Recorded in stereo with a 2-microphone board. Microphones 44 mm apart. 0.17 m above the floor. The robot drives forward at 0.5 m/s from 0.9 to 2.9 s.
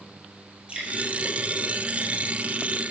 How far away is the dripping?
About 1.7 m.